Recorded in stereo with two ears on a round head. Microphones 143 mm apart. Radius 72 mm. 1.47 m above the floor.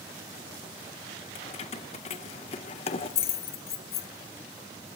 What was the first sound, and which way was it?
Keys jangling, 40° left (ahead or behind).